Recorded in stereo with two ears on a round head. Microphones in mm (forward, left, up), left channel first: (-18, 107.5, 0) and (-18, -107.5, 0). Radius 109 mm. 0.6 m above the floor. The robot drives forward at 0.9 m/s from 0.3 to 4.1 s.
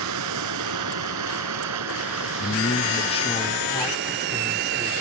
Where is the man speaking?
35° left (ahead or behind); by 4.9 s 15° left (ahead or behind).